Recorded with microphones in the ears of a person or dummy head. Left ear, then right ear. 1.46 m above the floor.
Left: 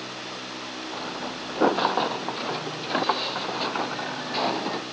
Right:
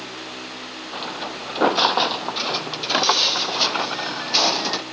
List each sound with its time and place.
0.9 s footsteps: 80° right